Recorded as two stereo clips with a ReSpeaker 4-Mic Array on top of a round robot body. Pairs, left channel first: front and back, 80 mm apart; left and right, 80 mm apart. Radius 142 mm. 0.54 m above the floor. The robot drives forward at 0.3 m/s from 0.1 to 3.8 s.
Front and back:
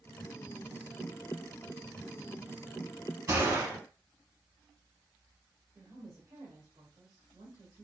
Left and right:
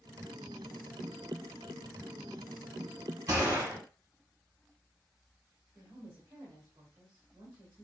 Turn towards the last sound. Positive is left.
turn(degrees=-160)